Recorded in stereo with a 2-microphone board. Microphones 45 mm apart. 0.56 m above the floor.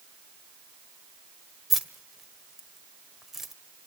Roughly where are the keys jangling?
Centre.